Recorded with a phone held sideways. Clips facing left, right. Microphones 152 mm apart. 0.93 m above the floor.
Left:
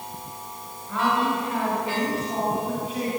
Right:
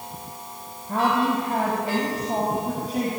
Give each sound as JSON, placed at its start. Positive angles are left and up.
{"t": 0.9, "sound": "a woman speaking", "side_deg": -45, "distance_m": 4.5}